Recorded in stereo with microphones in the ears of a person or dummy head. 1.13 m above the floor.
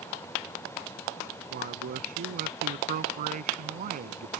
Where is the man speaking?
45° right (ahead or behind).